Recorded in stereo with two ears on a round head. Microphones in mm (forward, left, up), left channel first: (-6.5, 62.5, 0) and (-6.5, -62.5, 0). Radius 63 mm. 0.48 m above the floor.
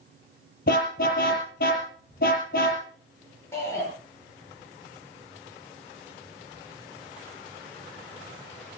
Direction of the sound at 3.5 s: 20° left (ahead or behind).